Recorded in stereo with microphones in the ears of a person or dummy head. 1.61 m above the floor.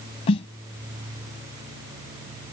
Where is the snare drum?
35° left (ahead or behind).